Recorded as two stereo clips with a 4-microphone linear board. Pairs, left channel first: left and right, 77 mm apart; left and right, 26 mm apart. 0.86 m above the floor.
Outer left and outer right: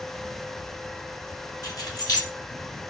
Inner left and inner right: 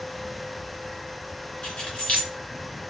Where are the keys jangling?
50° left (ahead or behind), 1.4 m.